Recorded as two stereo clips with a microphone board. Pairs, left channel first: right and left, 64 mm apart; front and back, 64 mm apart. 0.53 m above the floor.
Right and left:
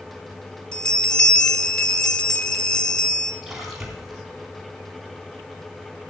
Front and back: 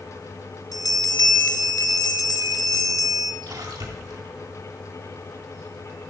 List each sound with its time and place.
0.7 s a bell: 10° right, 1.5 m
3.4 s a splash: 175° left, 3.5 m